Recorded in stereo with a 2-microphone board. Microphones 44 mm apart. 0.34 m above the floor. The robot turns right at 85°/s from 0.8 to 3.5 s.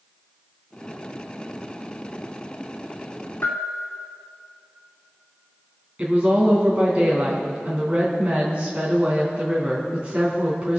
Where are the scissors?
No scissors in this recording.